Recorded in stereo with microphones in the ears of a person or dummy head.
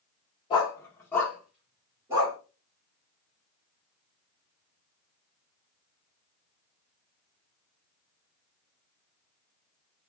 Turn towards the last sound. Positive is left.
turn(degrees=-15)  # may be behind; listen again after turning